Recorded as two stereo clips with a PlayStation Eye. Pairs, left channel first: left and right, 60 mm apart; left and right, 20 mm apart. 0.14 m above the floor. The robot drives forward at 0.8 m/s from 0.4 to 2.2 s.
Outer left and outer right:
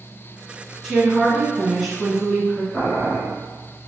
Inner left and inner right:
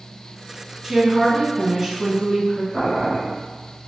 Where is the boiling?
30° left (ahead or behind), 1.8 m.